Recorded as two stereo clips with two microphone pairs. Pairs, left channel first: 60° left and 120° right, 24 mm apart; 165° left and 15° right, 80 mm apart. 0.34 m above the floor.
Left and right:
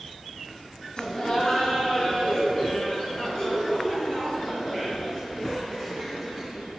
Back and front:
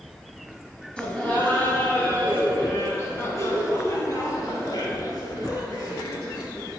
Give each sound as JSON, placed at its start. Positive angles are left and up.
{"t": 1.0, "sound": "laughter", "azimuth_deg": 90, "distance_m": 2.5}